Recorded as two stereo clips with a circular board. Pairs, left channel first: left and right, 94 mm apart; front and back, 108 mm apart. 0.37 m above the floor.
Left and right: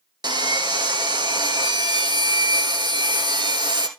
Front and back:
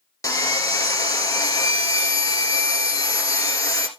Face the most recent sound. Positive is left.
turn(degrees=-55)